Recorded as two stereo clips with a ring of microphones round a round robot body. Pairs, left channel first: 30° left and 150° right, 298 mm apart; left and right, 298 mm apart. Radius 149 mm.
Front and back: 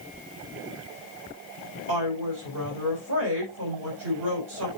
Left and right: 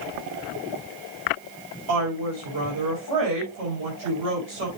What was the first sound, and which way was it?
A woman speaking, 110° right.